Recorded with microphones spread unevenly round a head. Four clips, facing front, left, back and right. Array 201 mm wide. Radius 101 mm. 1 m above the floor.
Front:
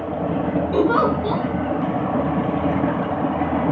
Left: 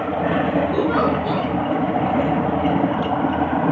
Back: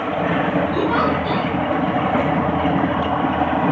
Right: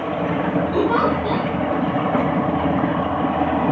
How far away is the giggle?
About 4.5 m.